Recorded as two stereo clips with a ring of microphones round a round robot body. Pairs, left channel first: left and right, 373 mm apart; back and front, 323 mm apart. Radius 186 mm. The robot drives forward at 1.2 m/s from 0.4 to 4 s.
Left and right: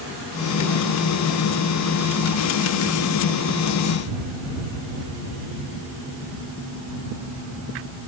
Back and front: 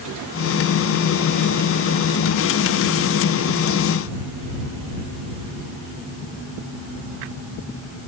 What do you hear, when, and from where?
Only background noise.